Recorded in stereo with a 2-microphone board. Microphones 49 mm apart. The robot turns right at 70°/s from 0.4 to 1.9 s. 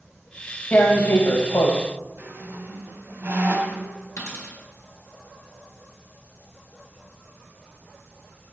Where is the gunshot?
I don't hear a gunshot.